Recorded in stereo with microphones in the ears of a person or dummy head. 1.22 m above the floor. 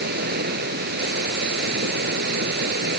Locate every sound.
0.0 s running water: 55° right (ahead or behind)